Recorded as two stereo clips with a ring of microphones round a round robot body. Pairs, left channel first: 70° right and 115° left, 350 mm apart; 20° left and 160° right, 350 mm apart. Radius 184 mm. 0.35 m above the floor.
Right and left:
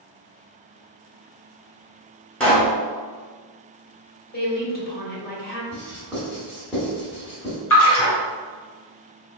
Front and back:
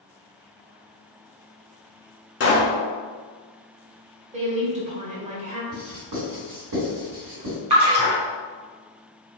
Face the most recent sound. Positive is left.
turn(degrees=-90)